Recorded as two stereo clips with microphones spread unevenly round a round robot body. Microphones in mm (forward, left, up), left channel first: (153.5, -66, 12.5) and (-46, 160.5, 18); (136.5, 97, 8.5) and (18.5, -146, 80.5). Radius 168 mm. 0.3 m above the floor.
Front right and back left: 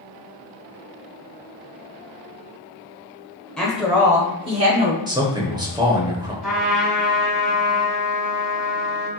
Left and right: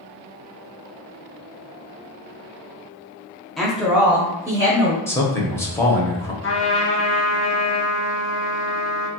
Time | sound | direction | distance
3.6 | a woman speaking | 30° left | 1.0 m
5.1 | a man speaking | 70° left | 0.9 m
6.4 | a trumpet | 45° left | 1.5 m